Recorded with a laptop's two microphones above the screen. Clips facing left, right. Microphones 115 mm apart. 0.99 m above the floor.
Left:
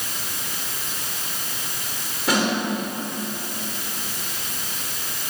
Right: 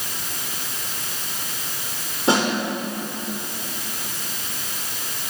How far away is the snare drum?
About 3.5 m.